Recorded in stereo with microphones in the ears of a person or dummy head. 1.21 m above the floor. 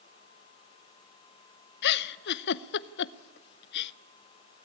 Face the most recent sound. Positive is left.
turn(degrees=60)  # may be behind; listen again after turning